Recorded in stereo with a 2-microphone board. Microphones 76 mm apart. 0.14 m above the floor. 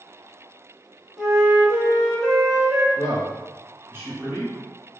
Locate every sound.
1.2 s a flute: 5° right (ahead or behind), 1.0 m
3.0 s a man speaking: 30° right (ahead or behind), 1.6 m